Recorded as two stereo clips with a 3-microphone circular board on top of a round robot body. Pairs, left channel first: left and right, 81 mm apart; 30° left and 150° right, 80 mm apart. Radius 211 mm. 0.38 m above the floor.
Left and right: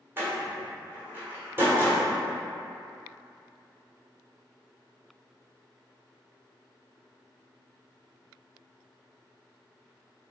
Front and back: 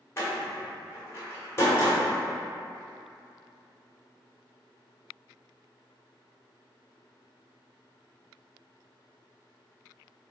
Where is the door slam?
30° right, 1.4 m.